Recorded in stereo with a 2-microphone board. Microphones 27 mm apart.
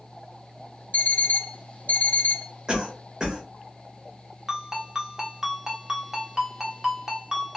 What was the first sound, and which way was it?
An alarm clock, 75° left (ahead or behind).